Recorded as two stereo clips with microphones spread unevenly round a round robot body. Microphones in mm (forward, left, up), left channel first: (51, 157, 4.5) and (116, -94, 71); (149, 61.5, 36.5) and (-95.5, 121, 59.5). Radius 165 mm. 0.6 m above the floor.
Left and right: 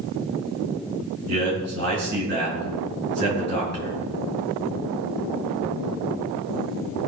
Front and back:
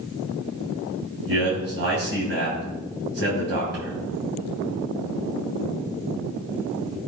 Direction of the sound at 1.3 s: 135° right.